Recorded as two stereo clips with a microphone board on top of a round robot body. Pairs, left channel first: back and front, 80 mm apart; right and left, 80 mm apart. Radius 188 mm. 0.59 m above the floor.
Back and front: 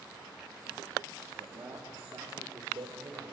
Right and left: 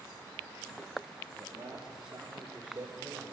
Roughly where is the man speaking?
Ahead.